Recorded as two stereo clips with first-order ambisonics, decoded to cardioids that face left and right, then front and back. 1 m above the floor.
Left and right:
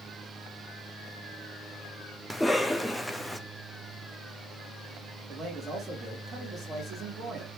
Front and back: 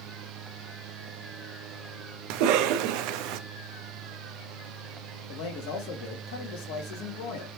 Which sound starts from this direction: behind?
A cough, at 2.3 s.